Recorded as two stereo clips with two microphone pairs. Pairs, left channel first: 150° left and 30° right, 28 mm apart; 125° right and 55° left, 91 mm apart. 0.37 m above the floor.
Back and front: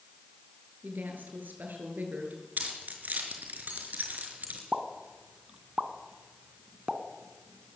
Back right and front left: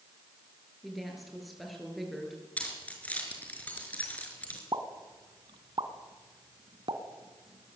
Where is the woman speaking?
35° right, 7 m.